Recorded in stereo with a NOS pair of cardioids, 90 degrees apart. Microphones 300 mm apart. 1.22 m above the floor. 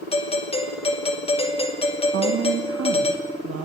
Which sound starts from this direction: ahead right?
A woman speaking, at 2.1 s.